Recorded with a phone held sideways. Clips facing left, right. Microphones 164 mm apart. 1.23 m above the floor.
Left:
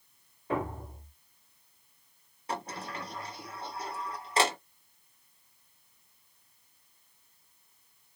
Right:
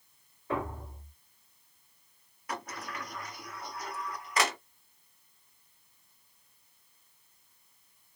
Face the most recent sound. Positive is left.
turn(degrees=30)  # may be behind; listen again after turning